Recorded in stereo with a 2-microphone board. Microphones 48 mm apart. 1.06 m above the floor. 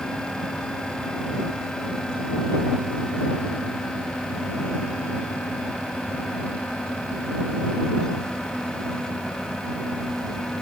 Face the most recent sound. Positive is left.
No sound to turn to.